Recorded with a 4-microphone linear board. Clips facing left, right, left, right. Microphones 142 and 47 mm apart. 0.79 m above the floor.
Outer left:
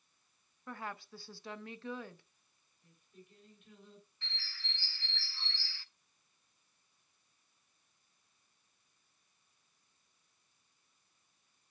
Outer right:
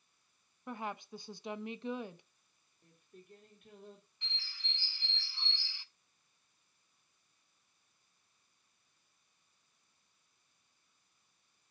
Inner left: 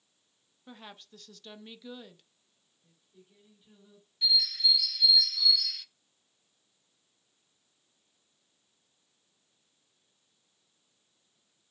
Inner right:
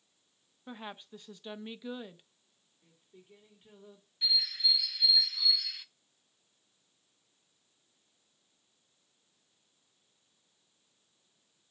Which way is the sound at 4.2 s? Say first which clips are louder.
Outer left 1 dB, inner left 3 dB; 15° right (ahead or behind).